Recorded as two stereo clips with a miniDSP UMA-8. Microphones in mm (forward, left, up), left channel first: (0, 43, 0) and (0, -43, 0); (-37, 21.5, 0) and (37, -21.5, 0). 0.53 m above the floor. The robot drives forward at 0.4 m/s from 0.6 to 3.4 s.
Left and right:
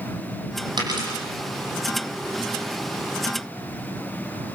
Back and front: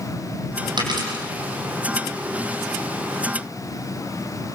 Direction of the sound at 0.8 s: 60° right.